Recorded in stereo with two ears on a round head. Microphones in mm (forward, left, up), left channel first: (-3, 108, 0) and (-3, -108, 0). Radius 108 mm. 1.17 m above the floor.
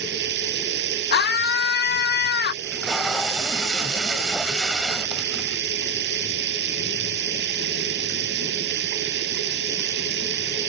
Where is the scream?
45° left (ahead or behind).